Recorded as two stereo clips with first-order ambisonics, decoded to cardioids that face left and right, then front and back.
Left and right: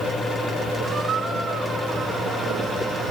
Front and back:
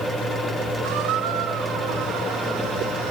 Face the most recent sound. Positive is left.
turn(degrees=-160)